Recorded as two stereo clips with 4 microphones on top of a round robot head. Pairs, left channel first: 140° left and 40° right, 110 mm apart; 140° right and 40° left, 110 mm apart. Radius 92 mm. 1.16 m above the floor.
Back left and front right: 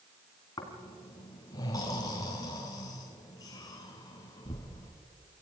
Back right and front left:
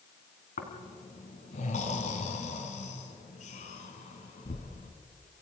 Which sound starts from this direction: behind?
Snoring, at 0.6 s.